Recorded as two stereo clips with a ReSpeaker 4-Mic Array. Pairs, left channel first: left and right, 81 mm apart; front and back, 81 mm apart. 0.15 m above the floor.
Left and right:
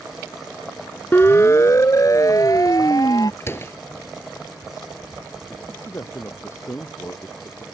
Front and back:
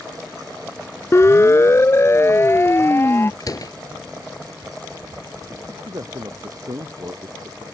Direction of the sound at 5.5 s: 140° left.